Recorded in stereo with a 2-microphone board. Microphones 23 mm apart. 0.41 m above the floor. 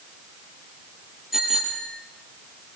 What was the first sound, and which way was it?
A bicycle bell, 15° right (ahead or behind).